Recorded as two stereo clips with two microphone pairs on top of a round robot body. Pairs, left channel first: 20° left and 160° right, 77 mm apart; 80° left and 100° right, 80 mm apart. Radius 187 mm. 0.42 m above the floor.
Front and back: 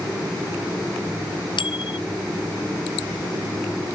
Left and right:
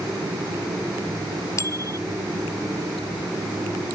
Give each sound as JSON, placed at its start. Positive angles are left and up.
{"t": 1.6, "sound": "a bicycle bell", "azimuth_deg": 30}